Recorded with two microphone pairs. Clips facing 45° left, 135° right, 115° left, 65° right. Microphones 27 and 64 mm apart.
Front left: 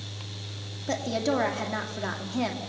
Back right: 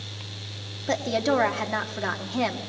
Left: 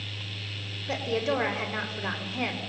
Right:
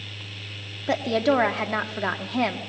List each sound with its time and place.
0.9 s a woman speaking: 65° right, 2.0 m